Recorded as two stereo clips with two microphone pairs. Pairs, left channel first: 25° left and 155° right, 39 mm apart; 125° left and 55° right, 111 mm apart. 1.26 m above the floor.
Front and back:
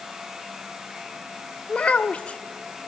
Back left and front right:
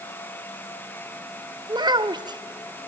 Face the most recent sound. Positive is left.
turn(degrees=-20)